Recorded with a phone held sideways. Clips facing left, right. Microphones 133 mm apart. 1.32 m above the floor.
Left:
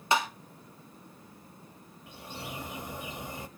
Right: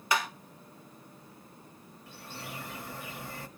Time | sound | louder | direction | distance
0.1 | tapping | left 3 dB | 25° left (ahead or behind) | 1.9 m
2.1 | a bird | left 2 dB | 20° left (ahead or behind) | 1.1 m